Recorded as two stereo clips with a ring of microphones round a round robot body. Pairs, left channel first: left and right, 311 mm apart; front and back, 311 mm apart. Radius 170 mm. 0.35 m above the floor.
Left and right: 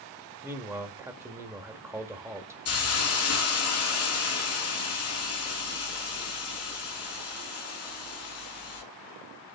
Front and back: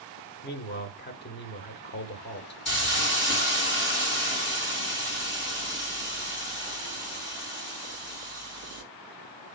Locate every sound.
0.4 s a man speaking: 15° right, 1.1 m
2.6 s a hiss: 50° left, 4.5 m